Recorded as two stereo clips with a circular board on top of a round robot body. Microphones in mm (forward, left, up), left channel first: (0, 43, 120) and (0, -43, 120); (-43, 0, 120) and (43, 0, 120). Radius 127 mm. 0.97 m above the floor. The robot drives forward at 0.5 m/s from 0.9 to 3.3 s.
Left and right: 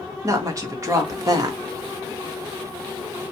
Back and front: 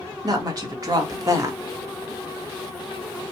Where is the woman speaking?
40° right, 1.6 m; by 1.6 s 50° right, 1.4 m.